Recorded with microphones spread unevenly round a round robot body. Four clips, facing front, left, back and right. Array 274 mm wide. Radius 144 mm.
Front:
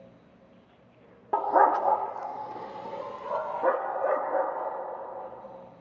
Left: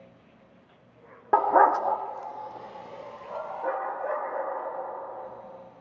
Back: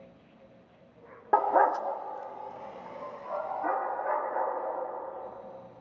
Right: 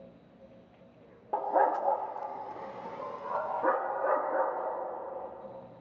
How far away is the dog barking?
About 0.6 m.